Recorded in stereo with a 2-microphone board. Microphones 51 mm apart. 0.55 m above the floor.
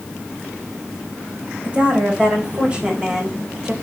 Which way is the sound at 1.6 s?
25° right (ahead or behind).